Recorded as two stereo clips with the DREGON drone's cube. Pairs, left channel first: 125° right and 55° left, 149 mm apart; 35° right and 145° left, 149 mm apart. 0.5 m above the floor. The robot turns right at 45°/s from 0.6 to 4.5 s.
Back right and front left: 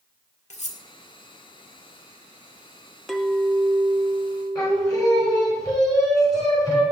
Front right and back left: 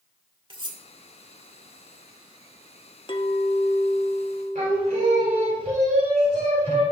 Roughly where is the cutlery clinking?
Behind.